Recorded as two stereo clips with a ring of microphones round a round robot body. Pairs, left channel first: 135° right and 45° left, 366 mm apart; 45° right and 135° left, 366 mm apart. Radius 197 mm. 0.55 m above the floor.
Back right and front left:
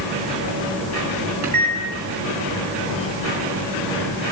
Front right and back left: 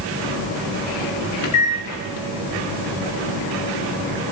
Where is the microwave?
Straight ahead, 5.5 m.